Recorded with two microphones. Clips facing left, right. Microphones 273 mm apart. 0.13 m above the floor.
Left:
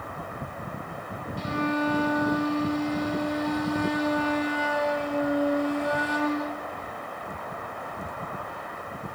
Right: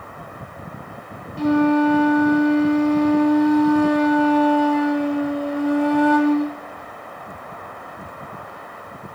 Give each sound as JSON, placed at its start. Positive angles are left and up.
{"t": 1.4, "sound": "a flute", "side_deg": -70, "distance_m": 1.6}